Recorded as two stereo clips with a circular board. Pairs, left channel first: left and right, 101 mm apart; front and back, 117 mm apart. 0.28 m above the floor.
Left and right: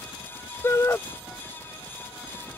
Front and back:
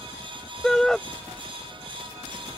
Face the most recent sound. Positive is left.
turn(degrees=80)